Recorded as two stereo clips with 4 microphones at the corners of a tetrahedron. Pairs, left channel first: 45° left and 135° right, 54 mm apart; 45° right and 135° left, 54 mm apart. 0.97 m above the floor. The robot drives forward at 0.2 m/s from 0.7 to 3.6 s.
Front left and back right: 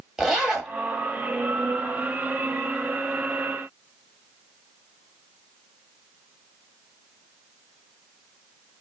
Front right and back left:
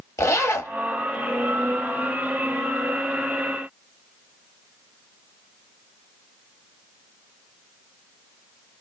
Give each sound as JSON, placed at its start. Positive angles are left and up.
{"t": 0.2, "sound": "a zipper", "azimuth_deg": -55, "distance_m": 1.0}